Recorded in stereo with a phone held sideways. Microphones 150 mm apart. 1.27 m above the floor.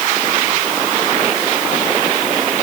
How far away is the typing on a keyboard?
No typing on a keyboard in this recording.